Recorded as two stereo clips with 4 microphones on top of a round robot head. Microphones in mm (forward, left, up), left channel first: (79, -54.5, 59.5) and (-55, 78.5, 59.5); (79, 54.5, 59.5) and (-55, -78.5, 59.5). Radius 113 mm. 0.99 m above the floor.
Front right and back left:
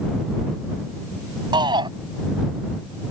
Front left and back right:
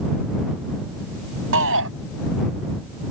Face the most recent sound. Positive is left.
turn(degrees=-155)